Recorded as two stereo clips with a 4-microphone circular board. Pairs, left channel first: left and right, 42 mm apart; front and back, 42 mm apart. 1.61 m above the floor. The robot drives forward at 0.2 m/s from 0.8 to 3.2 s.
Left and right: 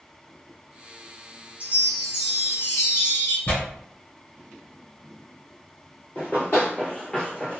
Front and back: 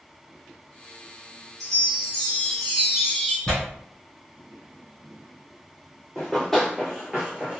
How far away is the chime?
About 1.9 m.